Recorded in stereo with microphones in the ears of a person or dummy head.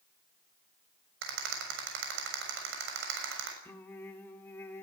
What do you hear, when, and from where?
1.2 s a rattle: 75° right (ahead or behind), 6.5 m
3.6 s singing: 10° left (ahead or behind), 2.5 m